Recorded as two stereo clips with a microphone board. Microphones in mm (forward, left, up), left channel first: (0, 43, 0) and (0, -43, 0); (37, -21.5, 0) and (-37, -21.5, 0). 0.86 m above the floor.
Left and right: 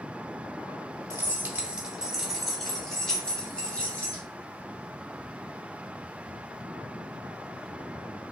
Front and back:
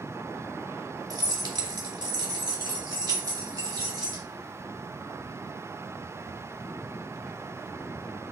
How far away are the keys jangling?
About 0.8 m.